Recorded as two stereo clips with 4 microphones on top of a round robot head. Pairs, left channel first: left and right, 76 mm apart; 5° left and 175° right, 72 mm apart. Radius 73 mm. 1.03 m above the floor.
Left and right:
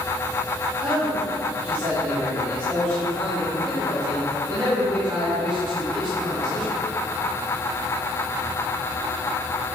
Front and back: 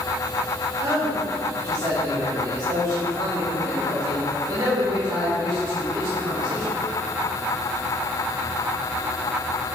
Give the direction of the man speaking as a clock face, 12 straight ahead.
5 o'clock.